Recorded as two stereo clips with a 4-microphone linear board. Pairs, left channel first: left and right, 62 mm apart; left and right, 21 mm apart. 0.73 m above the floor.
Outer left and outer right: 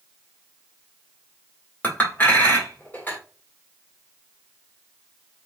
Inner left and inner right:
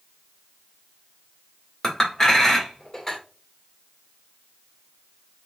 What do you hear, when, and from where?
1.8 s a clink: 30° left (ahead or behind), 1.6 m